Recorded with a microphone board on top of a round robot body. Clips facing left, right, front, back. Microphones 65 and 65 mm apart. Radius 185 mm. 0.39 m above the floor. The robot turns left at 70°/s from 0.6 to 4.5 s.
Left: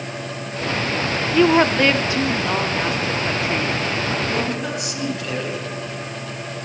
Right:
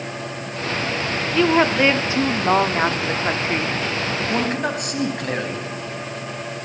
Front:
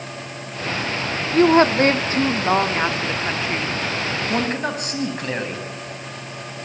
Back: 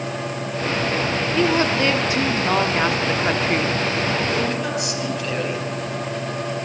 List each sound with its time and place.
1.3 s a woman speaking: 20° left, 1.8 m; by 3.8 s 155° right, 1.8 m
4.3 s a man speaking: 35° right, 4.5 m; by 5.7 s 50° right, 4.5 m